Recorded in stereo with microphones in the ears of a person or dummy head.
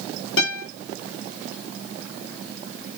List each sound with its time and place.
0.4 s a guitar: 70° left (ahead or behind), 3.5 m